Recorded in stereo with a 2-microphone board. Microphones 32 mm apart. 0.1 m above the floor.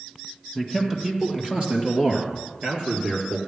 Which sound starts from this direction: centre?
A man speaking, at 0.6 s.